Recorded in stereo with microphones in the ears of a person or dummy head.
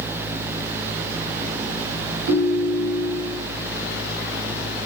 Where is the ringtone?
70° right (ahead or behind), 2.5 m.